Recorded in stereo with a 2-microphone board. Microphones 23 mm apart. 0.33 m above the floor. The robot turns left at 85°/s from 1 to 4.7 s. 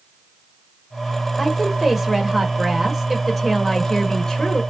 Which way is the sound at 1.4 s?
5° left (ahead or behind).